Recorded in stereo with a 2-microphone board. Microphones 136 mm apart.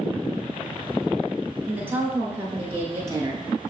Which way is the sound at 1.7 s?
10° right (ahead or behind).